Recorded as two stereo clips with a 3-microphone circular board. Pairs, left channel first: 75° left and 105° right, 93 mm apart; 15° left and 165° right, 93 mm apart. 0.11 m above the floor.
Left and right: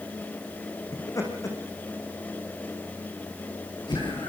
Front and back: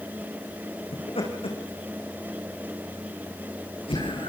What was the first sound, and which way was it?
Laughter, 20° left.